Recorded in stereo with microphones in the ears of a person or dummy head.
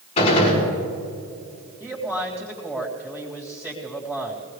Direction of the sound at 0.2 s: 35° left (ahead or behind).